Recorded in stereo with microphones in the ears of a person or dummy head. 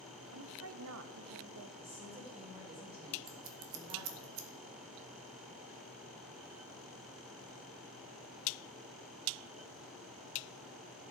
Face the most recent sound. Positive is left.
turn(degrees=-85)